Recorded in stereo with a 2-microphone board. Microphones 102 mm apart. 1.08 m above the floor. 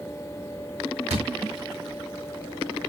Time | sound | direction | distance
1.1 | a thud | 80° right | 6 m